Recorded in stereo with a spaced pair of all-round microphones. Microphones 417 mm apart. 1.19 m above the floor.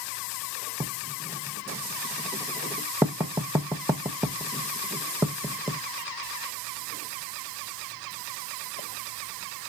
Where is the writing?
5° right (ahead or behind), 0.6 m.